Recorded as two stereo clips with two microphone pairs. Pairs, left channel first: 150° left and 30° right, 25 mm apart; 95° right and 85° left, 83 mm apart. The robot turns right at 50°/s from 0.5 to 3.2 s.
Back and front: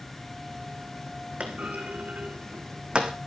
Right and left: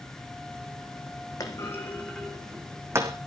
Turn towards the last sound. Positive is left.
turn(degrees=40)